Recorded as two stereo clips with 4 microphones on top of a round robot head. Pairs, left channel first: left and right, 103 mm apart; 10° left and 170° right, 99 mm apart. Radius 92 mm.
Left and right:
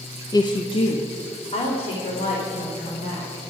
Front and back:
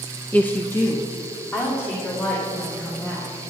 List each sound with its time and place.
0.3 s a woman speaking: 75° left, 0.8 m